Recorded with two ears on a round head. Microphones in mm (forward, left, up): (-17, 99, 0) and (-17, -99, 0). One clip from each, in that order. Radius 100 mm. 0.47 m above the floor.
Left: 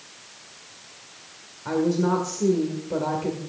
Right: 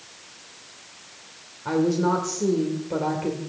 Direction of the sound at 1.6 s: 10° right (ahead or behind).